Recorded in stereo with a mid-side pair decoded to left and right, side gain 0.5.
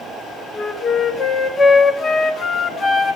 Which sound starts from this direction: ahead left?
A flute, at 0.5 s.